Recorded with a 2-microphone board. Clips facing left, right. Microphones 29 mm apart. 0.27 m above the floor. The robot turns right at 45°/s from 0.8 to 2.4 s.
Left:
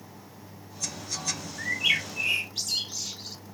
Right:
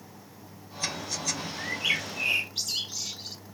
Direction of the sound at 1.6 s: 25° left (ahead or behind).